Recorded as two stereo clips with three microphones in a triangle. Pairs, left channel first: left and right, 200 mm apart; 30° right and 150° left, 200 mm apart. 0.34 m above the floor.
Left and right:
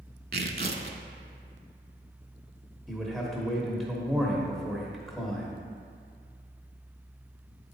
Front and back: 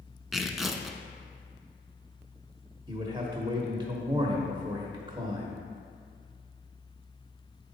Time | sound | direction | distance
0.3 | tearing paper | 120° right | 0.5 m
2.9 | a man speaking | straight behind | 0.8 m